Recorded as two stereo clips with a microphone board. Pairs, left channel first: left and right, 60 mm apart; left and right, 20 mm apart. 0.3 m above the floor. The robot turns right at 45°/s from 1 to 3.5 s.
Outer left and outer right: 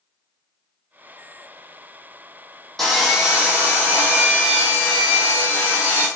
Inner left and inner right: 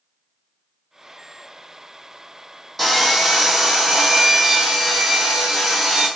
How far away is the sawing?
About 1.9 m.